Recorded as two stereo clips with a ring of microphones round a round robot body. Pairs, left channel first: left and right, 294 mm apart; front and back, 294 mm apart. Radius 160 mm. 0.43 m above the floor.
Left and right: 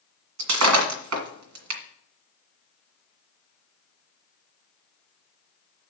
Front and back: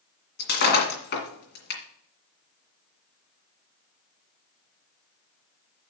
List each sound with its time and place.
0.4 s breaking glass: 60° right, 2 m